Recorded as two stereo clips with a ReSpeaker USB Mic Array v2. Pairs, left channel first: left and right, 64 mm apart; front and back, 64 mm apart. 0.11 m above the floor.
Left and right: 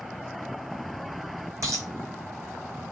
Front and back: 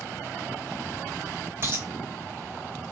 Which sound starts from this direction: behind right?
A dropped coin, at 1.6 s.